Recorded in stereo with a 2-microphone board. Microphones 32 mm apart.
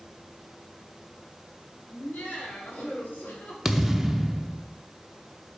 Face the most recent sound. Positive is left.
turn(degrees=-10)  # may be behind; listen again after turning